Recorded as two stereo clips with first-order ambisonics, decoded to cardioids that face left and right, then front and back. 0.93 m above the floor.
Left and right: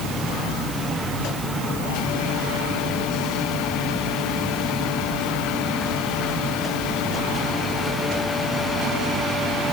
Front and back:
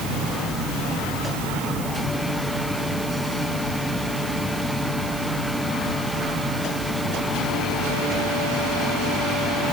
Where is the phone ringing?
No phone ringing in this recording.